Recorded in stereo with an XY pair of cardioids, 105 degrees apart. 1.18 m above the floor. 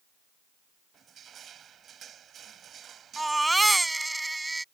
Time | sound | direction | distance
0.9 | crushing | 55° right | ?
3.2 | a baby crying | 15° right | ?